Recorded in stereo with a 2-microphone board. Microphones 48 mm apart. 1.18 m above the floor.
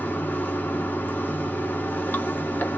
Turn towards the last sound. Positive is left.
turn(degrees=40)  # may be behind; listen again after turning